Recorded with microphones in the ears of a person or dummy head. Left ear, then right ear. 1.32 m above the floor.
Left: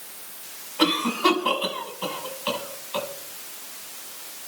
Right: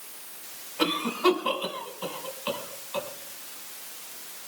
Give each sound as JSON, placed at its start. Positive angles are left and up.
{"t": 0.8, "sound": "a cough", "side_deg": 10, "distance_m": 5.5}